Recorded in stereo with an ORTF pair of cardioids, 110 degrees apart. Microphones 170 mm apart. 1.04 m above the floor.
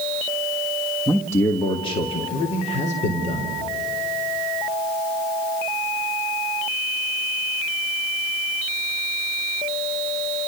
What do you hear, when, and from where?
1.1 s a man speaking: 5° left, 1.5 m; by 3.6 s 50° left, 4 m